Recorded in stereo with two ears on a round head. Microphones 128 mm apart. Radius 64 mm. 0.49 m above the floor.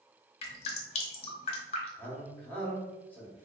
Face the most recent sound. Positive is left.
turn(degrees=10)  # may be behind; listen again after turning